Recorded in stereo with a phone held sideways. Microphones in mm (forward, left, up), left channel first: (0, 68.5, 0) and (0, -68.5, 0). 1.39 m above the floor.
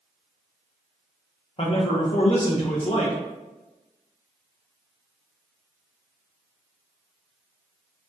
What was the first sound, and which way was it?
A man speaking, 45° left (ahead or behind).